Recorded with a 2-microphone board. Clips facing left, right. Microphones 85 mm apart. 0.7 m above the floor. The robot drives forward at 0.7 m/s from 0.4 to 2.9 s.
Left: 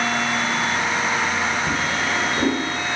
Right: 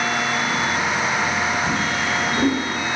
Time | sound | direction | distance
1.7 | a drawer | centre (ahead or behind) | 1.1 m